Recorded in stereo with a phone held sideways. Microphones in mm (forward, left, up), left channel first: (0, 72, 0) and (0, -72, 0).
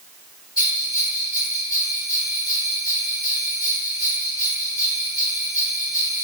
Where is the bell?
75° left (ahead or behind), 0.9 m.